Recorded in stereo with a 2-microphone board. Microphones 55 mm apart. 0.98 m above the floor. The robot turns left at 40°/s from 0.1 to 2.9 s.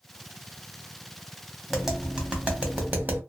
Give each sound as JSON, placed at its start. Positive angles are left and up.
{"t": 1.7, "sound": "tapping", "side_deg": 0, "distance_m": 0.9}